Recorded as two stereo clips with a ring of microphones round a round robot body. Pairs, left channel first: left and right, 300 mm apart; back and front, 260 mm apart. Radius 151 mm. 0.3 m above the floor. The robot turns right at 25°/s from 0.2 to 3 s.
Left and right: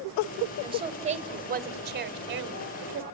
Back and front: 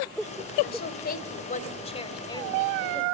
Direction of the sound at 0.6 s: 155° right.